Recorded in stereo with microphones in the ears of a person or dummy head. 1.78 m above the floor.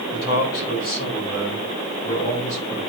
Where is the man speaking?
55° left (ahead or behind), 3 m; by 2.8 s 35° left (ahead or behind), 6.5 m.